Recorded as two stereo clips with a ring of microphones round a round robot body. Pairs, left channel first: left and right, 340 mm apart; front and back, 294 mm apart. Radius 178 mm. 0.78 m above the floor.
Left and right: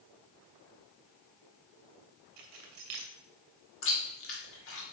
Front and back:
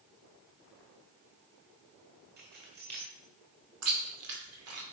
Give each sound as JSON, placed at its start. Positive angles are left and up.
{"t": 2.4, "sound": "keys jangling", "azimuth_deg": -120, "distance_m": 1.9}
{"t": 3.8, "sound": "chewing", "azimuth_deg": 145, "distance_m": 2.5}